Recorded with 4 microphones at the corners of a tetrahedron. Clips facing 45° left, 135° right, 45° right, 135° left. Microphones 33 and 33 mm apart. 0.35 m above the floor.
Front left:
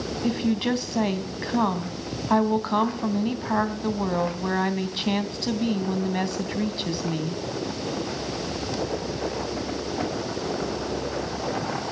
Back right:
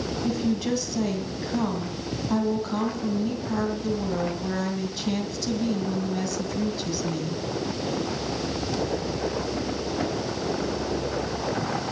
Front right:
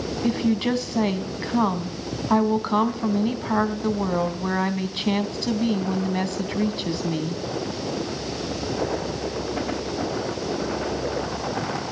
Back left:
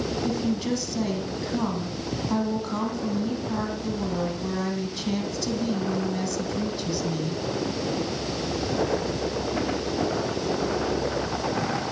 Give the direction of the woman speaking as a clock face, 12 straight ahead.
12 o'clock.